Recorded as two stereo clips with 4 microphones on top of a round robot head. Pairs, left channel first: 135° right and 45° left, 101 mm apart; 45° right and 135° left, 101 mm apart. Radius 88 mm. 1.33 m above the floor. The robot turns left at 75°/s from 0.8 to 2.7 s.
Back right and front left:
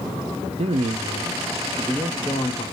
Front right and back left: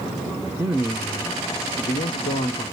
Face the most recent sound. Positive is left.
turn(degrees=-85)